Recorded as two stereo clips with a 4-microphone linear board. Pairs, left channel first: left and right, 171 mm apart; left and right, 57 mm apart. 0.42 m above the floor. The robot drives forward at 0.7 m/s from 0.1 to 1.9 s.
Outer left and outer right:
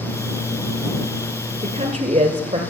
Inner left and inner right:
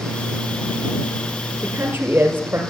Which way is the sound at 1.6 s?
40° right (ahead or behind).